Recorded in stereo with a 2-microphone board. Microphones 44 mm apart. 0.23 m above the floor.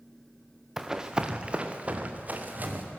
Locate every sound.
0.8 s running footsteps: 10° right (ahead or behind), 1.7 m; by 2.8 s 40° right (ahead or behind), 3.5 m